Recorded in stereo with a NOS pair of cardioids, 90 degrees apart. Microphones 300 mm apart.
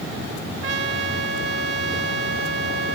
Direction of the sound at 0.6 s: 45° right.